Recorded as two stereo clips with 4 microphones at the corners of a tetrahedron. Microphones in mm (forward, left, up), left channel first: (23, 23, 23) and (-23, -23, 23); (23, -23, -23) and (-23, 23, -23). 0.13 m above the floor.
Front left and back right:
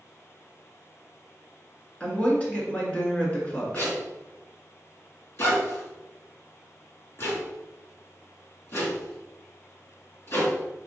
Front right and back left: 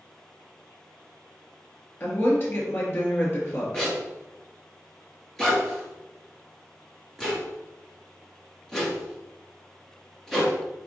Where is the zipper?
35° left, 2 m.